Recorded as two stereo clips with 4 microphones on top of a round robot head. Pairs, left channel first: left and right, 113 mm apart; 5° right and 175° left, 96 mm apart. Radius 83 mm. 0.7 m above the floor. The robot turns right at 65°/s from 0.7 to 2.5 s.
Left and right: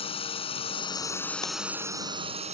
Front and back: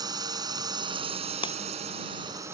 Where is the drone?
125° left; by 2.5 s 115° right.